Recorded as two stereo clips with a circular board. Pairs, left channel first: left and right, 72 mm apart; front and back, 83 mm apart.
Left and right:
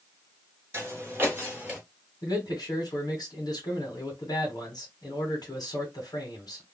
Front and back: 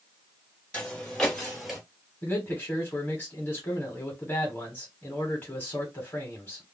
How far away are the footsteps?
About 2.0 m.